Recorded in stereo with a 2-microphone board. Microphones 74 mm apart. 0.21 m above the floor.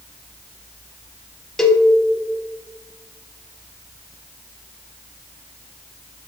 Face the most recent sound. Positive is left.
turn(degrees=5)  # may be behind; listen again after turning